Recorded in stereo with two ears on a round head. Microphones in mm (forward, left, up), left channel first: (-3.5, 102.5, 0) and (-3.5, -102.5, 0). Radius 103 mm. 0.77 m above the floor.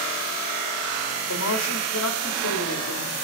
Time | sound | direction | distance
1.3 | a man speaking | 60° left (ahead or behind) | 1.4 m